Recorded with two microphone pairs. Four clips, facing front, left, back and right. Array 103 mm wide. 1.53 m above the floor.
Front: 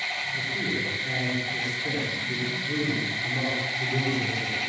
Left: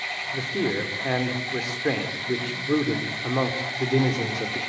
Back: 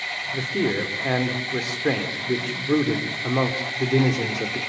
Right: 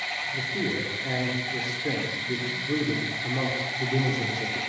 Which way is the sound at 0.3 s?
140° left.